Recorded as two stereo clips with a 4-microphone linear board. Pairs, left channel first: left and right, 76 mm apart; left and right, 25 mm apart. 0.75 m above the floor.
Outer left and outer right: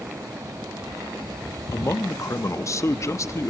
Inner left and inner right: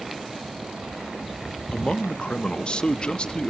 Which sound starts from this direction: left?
A man speaking, at 1.7 s.